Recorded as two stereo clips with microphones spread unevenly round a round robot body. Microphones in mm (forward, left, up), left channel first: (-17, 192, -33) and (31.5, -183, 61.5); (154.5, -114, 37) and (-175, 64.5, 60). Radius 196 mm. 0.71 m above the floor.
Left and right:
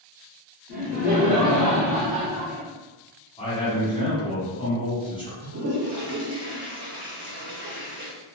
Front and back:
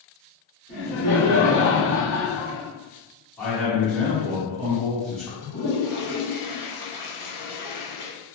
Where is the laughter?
35° left, 1.5 m; by 2.7 s 10° left, 0.7 m.